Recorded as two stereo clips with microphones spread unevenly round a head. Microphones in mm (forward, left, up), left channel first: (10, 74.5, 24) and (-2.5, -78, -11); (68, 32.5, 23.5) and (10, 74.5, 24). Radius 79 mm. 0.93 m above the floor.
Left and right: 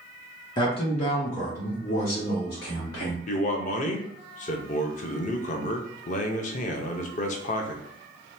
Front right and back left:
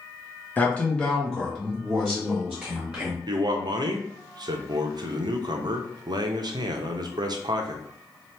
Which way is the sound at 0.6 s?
20° left.